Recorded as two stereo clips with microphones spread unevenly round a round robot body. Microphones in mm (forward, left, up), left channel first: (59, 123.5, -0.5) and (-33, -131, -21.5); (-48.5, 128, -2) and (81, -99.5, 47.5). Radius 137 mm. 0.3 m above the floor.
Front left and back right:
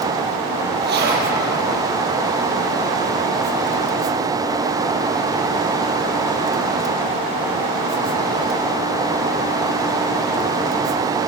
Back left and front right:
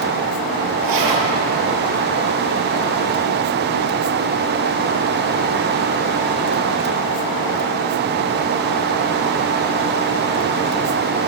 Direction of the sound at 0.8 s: 55° right.